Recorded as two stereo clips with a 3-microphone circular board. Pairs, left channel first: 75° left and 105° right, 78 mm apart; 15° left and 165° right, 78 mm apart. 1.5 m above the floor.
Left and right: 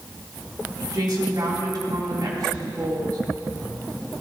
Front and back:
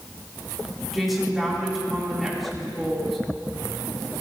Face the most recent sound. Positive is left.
turn(degrees=-75)